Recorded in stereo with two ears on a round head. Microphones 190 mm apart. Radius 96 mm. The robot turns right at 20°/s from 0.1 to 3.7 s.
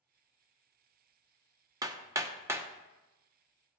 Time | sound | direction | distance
1.8 | hammering | 15° right (ahead or behind) | 0.8 m